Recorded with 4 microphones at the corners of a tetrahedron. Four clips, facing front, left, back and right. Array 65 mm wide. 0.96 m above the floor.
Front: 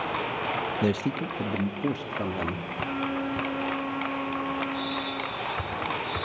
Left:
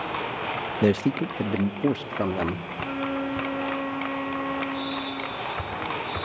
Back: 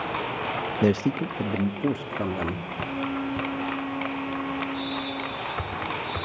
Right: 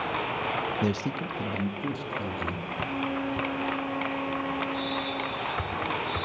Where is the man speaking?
125° left, 0.6 m; by 2.7 s 105° left, 2 m.